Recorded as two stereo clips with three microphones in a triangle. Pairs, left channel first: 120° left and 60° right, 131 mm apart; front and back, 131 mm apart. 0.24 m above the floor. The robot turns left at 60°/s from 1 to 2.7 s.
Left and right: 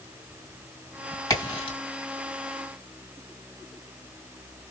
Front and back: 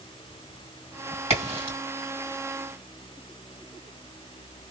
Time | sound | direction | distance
1.3 | a crack | 175° left | 2.5 m